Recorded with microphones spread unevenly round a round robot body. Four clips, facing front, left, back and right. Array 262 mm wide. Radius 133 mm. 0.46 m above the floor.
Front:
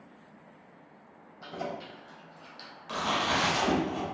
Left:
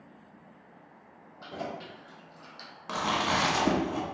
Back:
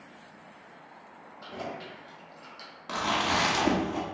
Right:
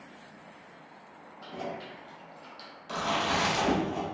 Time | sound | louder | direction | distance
1.4 | keys jangling | even, front 1 dB | 105° left | 1.7 m
2.9 | chewing | left 1 dB, back 1 dB | 120° left | 1.1 m